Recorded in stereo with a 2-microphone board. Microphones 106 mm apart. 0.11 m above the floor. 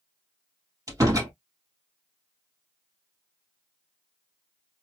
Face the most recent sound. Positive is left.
turn(degrees=-30)  # may be behind; listen again after turning